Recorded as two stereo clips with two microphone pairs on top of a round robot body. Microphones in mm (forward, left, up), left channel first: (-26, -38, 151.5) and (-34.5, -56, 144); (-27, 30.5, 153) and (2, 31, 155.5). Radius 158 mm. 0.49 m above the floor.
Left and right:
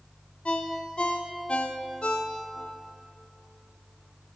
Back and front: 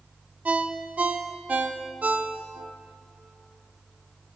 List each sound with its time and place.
0.5 s a ringtone: 35° left, 0.5 m